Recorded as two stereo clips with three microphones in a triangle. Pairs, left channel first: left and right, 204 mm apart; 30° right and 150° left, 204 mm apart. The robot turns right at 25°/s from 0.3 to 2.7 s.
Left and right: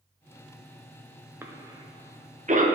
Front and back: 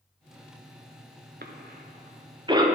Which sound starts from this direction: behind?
A cough, at 1.4 s.